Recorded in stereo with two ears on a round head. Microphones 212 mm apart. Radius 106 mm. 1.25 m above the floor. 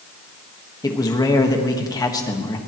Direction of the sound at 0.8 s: 15° left (ahead or behind).